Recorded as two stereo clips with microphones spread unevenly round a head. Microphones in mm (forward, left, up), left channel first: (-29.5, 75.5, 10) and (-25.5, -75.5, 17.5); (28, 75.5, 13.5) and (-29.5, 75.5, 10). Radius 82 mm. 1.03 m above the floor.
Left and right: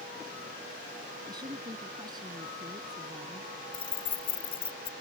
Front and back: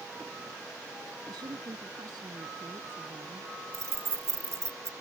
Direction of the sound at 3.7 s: 145° left.